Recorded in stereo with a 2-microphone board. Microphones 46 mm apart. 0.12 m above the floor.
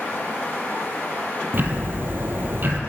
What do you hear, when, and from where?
1.5 s ticking: 50° right (ahead or behind), 1.6 m